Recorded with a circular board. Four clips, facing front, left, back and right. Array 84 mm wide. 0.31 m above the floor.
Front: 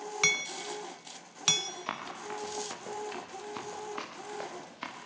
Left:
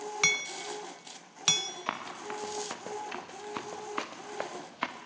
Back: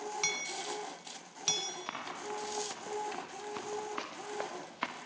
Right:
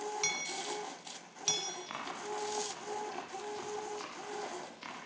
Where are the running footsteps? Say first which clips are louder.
Left 5 dB, front 3 dB; 80° left, 6 m; by 5.0 s 120° left, 2.5 m.